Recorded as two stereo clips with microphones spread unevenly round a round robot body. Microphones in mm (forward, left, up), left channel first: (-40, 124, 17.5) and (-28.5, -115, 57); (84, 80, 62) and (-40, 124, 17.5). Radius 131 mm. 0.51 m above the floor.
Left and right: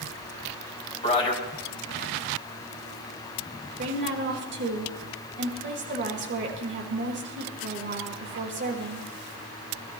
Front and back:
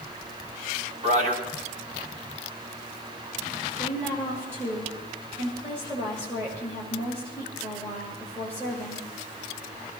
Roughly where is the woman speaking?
Behind right.